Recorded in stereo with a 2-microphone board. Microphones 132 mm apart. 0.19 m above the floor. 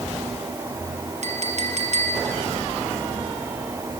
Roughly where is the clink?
Right.